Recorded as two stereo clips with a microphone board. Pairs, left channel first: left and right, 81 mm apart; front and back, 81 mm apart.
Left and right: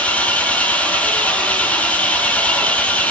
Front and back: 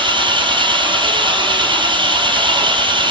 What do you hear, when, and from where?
0.0 s an engine running: 165° left, 3 m